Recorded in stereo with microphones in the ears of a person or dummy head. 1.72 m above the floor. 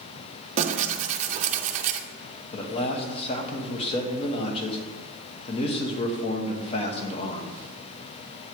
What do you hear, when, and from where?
0.6 s tearing paper: 45° right (ahead or behind), 0.5 m
2.5 s a man speaking: 30° left (ahead or behind), 1.1 m